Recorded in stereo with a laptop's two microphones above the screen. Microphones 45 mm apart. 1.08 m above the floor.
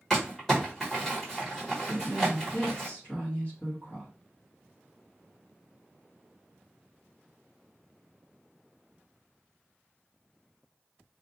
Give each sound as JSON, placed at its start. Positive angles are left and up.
{"t": 0.1, "sound": "crumpling", "side_deg": 5, "distance_m": 1.4}
{"t": 1.9, "sound": "a woman speaking", "side_deg": 35, "distance_m": 1.3}